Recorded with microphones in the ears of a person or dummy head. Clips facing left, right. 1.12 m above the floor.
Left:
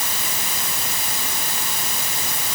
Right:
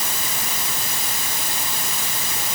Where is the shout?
No shout in this recording.